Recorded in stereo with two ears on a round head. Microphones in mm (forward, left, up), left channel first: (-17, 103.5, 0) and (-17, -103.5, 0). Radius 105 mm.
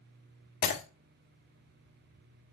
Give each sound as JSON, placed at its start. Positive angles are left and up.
{"t": 0.6, "sound": "breaking glass", "side_deg": 45, "distance_m": 1.6}